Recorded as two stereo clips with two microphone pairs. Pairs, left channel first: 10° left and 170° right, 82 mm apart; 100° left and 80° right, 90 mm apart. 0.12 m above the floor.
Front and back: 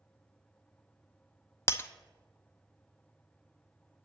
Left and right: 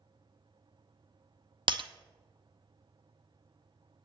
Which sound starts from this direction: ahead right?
Breaking glass, at 1.7 s.